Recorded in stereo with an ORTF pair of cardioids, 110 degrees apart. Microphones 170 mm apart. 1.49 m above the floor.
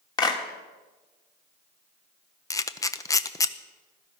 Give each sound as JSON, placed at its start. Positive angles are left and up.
{"t": 0.2, "sound": "a clap", "azimuth_deg": 25, "distance_m": 2.5}
{"t": 2.5, "sound": "a camera shutter", "azimuth_deg": 20, "distance_m": 0.8}